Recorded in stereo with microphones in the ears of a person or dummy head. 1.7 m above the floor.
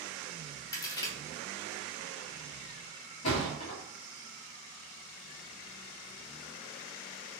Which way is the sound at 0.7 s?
20° left (ahead or behind).